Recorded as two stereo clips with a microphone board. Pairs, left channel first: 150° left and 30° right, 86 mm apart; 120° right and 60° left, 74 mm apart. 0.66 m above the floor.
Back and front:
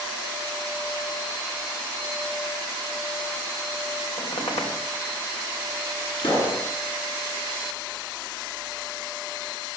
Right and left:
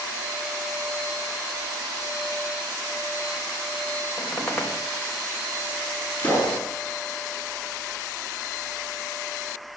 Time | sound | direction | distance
4.2 | a squeak | 165° left | 4 m
6.2 | a pop | 170° left | 9 m